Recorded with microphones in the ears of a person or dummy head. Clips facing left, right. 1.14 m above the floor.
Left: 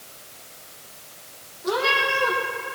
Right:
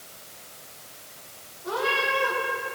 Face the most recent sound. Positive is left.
turn(degrees=65)  # may be behind; listen again after turning